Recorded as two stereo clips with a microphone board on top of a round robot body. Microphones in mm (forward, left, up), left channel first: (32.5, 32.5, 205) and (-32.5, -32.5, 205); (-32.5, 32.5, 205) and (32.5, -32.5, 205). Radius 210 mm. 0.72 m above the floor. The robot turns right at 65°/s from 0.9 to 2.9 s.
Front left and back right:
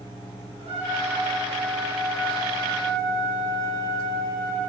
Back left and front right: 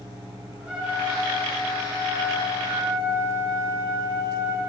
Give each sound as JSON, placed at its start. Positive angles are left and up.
{"t": 0.6, "sound": "a trumpet", "azimuth_deg": -125, "distance_m": 3.0}